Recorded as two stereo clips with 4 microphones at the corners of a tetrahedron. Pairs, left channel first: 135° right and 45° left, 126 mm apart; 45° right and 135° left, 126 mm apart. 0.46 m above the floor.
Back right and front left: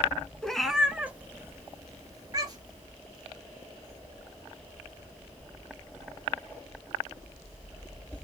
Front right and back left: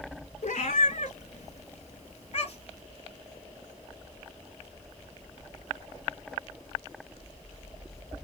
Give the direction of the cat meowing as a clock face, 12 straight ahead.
2 o'clock.